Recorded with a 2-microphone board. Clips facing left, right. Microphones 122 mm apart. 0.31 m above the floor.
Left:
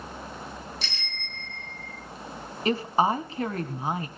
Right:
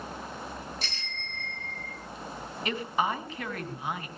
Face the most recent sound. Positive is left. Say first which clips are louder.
# left 6 dB
turn(degrees=35)  # may be behind; listen again after turning